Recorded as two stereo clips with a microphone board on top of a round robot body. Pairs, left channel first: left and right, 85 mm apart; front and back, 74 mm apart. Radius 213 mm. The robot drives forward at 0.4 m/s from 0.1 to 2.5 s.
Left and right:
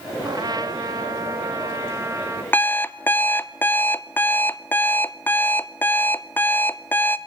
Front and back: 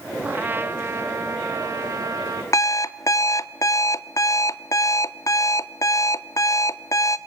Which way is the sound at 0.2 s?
120° right.